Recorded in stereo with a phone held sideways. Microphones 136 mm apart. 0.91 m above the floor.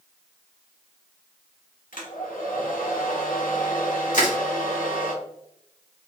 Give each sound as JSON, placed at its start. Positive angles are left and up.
{"t": 1.9, "sound": "a hair dryer", "side_deg": 85, "distance_m": 1.1}
{"t": 4.1, "sound": "crushing", "side_deg": 70, "distance_m": 1.3}